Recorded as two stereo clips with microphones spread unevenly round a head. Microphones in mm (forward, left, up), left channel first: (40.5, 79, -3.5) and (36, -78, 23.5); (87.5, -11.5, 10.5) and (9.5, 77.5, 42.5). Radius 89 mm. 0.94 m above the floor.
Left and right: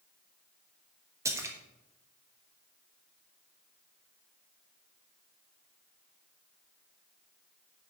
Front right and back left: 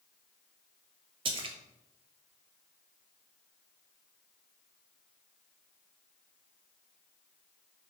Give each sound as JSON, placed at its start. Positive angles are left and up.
{"t": 1.2, "sound": "a splash", "azimuth_deg": -170, "distance_m": 1.2}